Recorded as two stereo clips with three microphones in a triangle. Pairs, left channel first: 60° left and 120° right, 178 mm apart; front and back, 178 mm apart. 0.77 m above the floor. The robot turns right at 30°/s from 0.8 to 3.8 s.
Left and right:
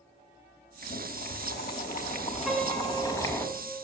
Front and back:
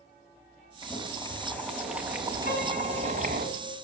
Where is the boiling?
60° left, 3 m; by 3.5 s 140° left, 3 m.